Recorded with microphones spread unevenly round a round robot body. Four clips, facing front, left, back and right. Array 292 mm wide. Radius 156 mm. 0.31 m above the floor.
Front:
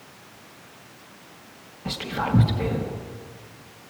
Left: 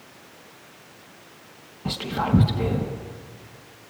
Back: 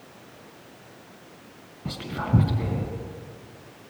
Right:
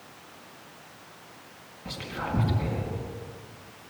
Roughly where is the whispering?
Behind left.